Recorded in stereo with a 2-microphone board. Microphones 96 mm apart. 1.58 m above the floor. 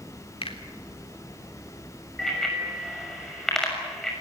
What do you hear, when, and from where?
0.4 s a finger snap: 75° left (ahead or behind), 3.5 m
2.2 s a bicycle bell: 5° left (ahead or behind), 6.5 m